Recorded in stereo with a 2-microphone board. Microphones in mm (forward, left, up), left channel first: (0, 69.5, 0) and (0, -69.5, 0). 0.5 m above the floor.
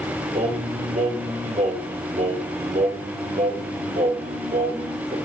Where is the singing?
60° right (ahead or behind), 2.5 m.